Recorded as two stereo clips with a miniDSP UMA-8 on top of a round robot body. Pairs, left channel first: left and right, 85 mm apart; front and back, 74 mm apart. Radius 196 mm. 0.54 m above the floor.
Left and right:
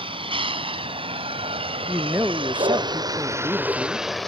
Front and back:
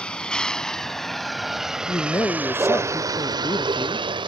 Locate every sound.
0.0 s a vehicle: 75° right; by 4.3 s 175° left
1.9 s a man speaking: 30° right